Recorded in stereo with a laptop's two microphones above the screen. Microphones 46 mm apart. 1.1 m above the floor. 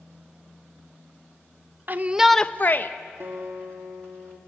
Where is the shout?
45° right (ahead or behind), 0.8 m; by 2.9 s 55° left (ahead or behind), 1.0 m.